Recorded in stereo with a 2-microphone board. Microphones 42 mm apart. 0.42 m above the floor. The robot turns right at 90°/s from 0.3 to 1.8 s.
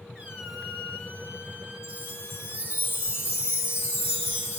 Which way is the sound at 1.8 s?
65° left (ahead or behind).